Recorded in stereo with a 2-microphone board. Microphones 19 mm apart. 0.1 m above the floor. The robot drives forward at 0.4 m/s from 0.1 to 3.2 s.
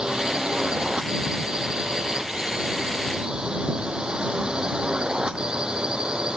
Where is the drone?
55° right (ahead or behind).